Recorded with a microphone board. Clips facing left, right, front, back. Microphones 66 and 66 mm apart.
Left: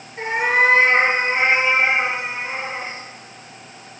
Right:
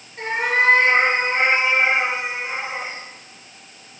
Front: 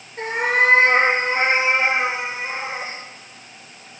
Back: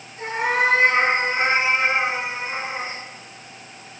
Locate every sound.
0.2 s a cat meowing: 25° left, 3.5 m; by 3.0 s 5° right, 5 m